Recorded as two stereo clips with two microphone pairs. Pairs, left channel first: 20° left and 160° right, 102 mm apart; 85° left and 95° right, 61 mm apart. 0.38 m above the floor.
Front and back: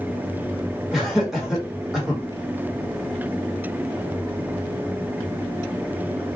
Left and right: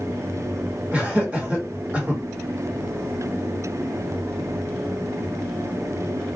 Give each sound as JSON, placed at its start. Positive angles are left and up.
{"t": 0.9, "sound": "laughter", "azimuth_deg": -85, "distance_m": 1.2}